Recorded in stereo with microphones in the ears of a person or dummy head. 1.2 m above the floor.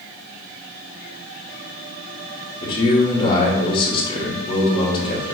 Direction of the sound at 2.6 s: 25° left (ahead or behind).